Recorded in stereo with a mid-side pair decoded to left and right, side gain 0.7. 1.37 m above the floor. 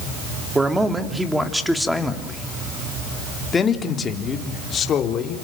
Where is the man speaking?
15° right, 3 m; by 5.4 s 45° left, 3.5 m.